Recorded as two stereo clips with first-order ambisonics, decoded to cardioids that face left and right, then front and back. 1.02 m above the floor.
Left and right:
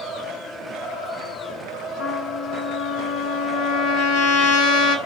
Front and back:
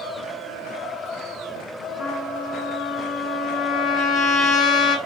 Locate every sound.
2.0 s a trumpet: 60° left, 1.1 m